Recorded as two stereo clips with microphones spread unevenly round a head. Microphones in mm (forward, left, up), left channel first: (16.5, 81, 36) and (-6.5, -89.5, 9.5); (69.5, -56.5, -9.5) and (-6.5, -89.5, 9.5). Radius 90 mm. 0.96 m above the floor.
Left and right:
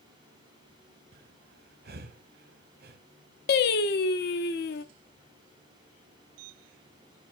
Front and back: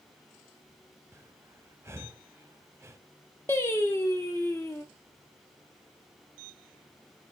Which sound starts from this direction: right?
Breathing, at 1.1 s.